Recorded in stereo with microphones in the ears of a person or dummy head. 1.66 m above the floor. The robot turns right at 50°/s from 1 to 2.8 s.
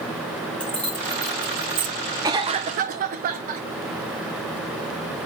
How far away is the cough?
About 1.0 m.